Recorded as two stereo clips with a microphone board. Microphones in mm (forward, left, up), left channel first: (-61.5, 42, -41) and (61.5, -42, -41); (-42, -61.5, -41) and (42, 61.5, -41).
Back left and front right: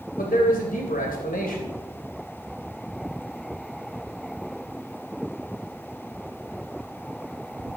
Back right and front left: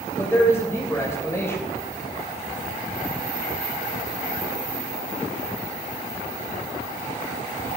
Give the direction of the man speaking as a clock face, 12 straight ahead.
7 o'clock.